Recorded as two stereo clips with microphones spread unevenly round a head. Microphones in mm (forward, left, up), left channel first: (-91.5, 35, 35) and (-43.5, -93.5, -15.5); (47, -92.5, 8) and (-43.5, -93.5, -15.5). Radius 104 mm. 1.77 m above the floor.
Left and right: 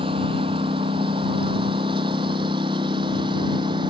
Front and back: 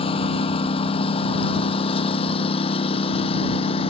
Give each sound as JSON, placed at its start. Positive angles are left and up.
{"t": 0.0, "sound": "a lawn mower", "azimuth_deg": 0}